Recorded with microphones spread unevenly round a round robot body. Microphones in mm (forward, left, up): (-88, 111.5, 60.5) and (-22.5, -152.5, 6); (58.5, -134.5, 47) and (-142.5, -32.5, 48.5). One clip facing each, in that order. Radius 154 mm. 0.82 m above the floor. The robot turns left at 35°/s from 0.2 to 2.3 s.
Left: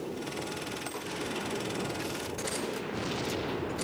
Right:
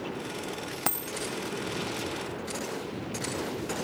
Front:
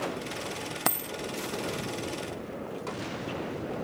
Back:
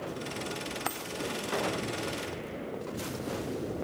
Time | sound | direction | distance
0.9 | a dropped coin | 60° right | ?